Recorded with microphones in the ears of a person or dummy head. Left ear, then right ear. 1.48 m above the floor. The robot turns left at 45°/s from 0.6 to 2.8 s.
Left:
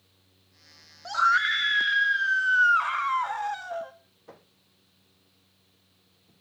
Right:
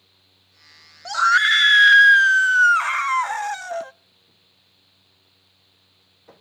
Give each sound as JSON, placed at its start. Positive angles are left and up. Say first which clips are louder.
{"t": 1.1, "sound": "a scream", "louder": "right 6 dB", "azimuth_deg": -25, "distance_m": 0.8}